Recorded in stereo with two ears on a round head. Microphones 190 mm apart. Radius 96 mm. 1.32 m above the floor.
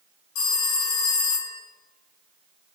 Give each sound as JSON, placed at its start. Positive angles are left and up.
{"t": 0.3, "sound": "a phone ringing", "side_deg": 75, "distance_m": 1.2}